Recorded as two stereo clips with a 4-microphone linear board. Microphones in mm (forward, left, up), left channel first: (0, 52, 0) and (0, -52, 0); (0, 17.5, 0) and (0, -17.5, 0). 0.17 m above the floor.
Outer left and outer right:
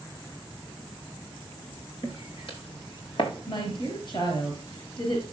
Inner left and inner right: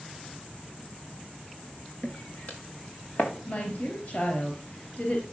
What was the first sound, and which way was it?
Footsteps, 65° left (ahead or behind).